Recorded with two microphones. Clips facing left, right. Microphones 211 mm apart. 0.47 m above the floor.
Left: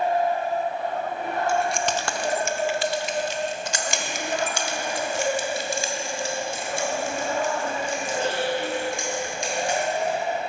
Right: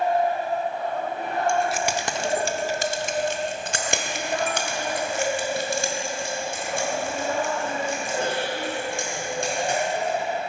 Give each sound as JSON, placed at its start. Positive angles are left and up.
{"t": 1.5, "sound": "keys jangling", "side_deg": 5, "distance_m": 0.7}